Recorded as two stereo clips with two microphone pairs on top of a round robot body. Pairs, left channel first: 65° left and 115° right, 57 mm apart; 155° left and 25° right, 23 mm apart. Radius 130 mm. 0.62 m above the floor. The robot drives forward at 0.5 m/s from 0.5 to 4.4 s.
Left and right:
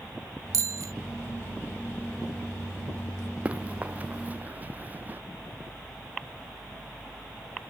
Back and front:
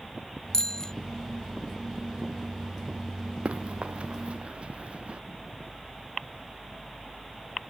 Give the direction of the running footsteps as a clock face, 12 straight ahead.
2 o'clock.